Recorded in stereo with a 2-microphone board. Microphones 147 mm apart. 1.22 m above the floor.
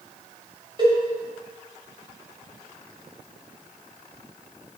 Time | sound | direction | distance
0.8 | a cowbell | 35° right (ahead or behind) | 5.5 m